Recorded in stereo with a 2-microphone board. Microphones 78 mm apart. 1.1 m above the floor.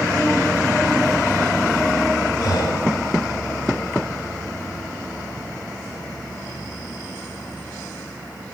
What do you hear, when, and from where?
2.4 s breathing: 65° left (ahead or behind), 1.8 m